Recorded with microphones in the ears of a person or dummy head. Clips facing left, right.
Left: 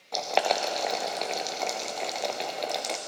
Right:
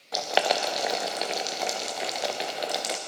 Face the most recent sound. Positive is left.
turn(degrees=-10)  # may be behind; listen again after turning